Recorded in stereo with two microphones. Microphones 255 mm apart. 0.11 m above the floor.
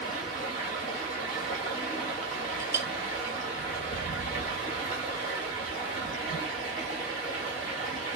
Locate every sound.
0.0 s running water: 35° left (ahead or behind), 2.5 m
2.6 s a clink: 10° right (ahead or behind), 0.7 m